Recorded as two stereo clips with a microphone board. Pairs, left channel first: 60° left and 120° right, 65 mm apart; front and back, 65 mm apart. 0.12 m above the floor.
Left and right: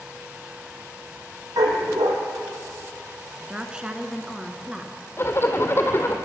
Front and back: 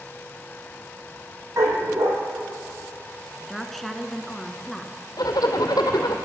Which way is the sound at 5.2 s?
10° left.